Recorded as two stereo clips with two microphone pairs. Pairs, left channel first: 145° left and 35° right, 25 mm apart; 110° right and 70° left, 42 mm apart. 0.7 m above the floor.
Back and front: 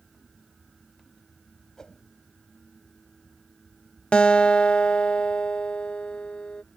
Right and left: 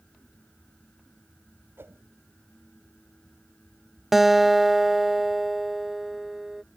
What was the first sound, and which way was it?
A whoosh, 85° left.